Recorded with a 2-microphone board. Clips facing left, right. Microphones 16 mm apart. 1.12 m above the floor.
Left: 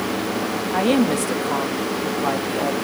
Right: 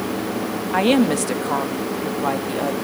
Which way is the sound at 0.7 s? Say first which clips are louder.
Right 2 dB; 35° right (ahead or behind).